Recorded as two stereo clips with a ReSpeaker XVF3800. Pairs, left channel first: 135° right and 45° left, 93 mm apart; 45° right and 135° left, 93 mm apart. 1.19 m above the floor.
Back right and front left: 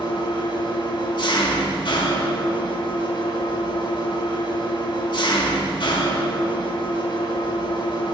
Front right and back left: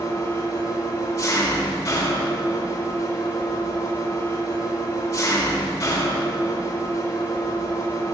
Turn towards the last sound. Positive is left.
turn(degrees=-100)